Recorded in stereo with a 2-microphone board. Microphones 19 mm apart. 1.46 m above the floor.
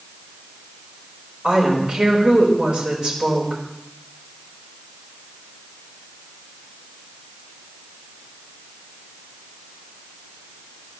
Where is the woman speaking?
85° right, 5 m.